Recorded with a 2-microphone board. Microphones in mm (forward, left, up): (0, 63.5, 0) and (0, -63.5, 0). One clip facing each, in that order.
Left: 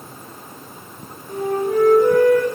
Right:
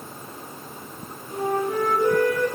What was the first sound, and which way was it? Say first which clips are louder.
A flute: left 4 dB; 65° left (ahead or behind).